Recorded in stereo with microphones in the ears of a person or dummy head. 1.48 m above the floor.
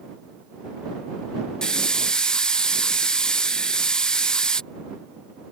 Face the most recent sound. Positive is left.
turn(degrees=0)  # may be behind; listen again after turning